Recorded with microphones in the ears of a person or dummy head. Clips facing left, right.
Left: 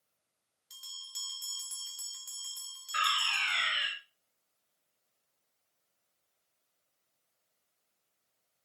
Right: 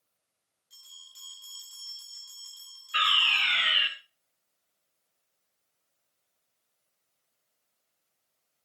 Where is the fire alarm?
45° right (ahead or behind), 3 m.